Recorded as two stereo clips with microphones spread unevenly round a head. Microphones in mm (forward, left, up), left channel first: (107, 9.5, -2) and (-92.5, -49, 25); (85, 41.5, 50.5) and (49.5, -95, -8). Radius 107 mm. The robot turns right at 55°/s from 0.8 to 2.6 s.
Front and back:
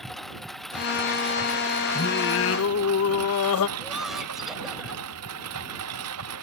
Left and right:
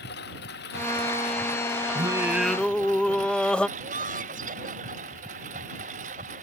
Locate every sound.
0.0 s a lawn mower: 105° left; by 6.4 s 155° right
1.9 s singing: 35° right; by 3.7 s straight ahead
3.8 s laughter: 75° right